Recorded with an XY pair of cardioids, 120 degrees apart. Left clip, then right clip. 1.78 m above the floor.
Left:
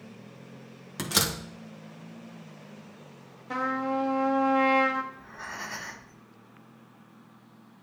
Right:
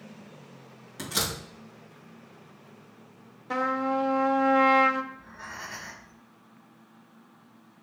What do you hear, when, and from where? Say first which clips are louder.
1.0 s a door slam: left 3 dB; 45° left, 1.7 m
3.5 s a trumpet: right 2 dB; 20° right, 1.0 m
5.1 s breathing: left 2 dB; 20° left, 2 m